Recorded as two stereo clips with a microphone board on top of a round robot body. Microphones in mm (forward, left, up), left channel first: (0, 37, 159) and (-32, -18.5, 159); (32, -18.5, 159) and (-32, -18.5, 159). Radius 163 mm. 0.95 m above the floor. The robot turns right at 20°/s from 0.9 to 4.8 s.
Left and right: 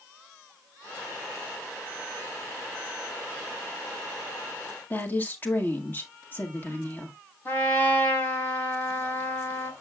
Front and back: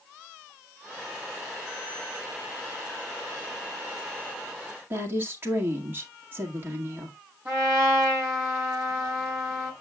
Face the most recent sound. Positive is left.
turn(degrees=120)